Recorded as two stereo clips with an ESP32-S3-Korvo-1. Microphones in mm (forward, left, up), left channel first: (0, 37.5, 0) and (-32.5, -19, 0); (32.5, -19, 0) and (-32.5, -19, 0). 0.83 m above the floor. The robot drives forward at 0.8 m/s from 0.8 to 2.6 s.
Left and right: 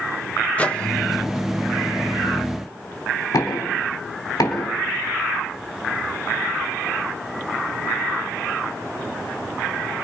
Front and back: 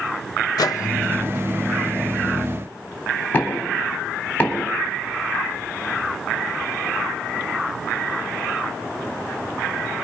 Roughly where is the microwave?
Ahead.